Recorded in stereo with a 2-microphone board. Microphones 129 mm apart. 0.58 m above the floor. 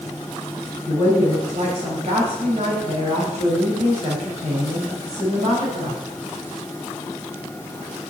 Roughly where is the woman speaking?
Right.